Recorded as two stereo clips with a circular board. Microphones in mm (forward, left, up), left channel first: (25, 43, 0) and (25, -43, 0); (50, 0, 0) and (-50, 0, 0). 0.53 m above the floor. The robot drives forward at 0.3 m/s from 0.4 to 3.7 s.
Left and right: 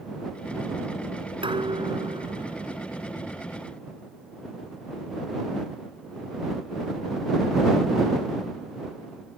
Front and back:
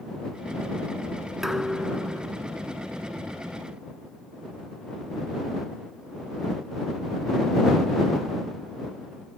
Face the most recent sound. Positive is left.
turn(degrees=-100)